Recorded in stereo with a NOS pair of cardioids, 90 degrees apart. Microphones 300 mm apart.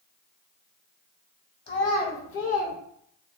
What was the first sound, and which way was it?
A child speaking, 35° left.